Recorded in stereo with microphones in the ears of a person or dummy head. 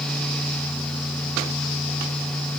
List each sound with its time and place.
Only background noise.